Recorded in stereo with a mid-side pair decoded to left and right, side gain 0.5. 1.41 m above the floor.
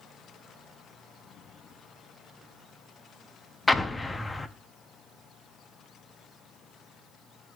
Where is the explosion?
20° left, 0.6 m.